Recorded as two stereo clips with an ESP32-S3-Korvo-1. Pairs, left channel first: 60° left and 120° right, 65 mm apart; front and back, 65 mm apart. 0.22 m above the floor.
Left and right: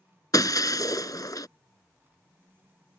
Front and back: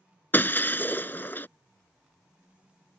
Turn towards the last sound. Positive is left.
turn(degrees=55)